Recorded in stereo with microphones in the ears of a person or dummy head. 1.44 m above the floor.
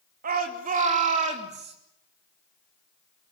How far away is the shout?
About 3 m.